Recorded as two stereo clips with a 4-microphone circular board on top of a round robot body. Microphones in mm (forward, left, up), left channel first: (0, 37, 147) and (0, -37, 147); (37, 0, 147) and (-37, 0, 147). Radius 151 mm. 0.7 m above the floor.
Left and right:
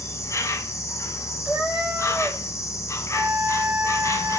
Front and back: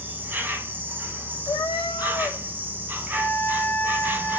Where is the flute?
70° right, 1.2 m.